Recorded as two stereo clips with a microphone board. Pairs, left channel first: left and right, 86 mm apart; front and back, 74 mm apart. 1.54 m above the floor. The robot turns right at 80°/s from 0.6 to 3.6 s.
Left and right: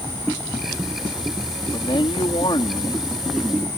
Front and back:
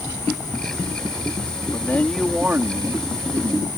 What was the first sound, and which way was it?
A man speaking, 50° left.